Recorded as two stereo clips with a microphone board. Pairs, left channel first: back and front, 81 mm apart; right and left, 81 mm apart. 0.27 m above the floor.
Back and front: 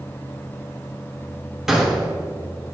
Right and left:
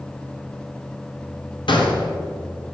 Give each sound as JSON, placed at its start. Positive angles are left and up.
{"t": 1.7, "sound": "a gunshot", "azimuth_deg": -85, "distance_m": 1.2}